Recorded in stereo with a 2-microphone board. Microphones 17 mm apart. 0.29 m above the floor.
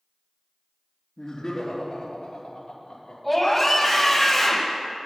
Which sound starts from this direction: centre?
A scream, at 3.2 s.